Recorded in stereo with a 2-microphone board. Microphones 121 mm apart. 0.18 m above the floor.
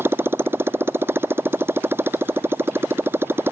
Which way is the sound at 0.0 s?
20° right (ahead or behind).